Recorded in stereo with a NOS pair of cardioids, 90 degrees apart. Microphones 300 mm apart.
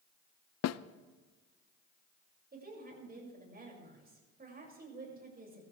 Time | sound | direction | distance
0.6 | a snare drum | 60° left | 0.7 m
2.5 | a woman speaking | 30° right | 7 m